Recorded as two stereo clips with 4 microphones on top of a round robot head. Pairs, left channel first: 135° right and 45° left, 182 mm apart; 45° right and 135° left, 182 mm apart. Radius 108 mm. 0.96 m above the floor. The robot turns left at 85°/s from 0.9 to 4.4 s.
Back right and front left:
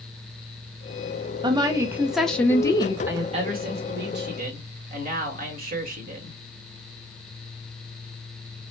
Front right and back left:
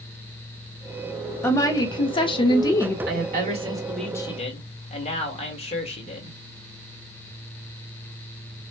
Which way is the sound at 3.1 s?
125° left.